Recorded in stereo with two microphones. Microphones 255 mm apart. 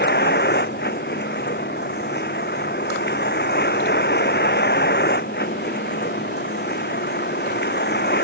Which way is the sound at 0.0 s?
40° left (ahead or behind).